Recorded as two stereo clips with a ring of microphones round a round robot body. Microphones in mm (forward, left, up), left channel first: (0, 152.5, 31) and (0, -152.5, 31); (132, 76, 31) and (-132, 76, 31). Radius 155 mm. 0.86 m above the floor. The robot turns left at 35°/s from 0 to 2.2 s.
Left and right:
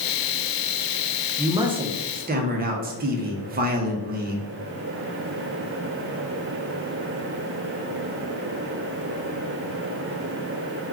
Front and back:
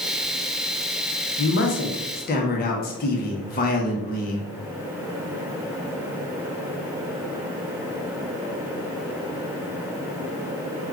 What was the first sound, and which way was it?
A man speaking, 15° right.